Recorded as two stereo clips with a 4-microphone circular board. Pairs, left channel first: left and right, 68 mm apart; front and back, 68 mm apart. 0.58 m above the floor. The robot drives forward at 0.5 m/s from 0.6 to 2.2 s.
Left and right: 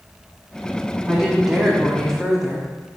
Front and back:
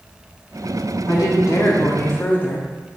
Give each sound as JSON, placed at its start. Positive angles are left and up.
{"t": 1.1, "sound": "a woman speaking", "azimuth_deg": -5, "distance_m": 1.1}